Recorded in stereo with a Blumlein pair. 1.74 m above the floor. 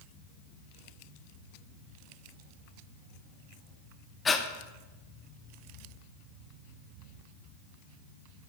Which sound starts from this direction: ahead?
Breathing, at 4.2 s.